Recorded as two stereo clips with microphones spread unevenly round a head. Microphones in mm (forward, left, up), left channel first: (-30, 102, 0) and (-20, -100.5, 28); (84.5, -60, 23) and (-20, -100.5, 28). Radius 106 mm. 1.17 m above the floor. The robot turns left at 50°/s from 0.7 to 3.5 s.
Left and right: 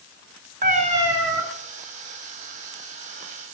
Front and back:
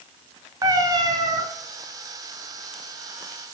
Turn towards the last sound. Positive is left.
turn(degrees=105)